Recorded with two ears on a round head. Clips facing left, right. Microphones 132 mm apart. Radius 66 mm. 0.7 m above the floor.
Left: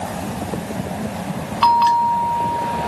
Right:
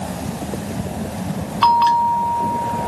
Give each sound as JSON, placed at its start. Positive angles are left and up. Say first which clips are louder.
{"t": 1.6, "sound": "a bell", "louder": "even", "side_deg": 5}